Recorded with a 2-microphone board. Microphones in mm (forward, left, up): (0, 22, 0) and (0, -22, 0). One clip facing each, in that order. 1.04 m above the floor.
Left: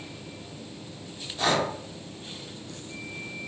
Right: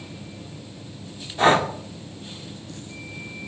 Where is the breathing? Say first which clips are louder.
Right 7 dB; 35° right (ahead or behind), 1.9 m.